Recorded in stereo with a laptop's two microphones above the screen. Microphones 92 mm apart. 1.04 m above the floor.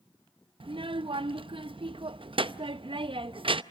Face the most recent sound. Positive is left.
turn(degrees=-60)  # may be behind; listen again after turning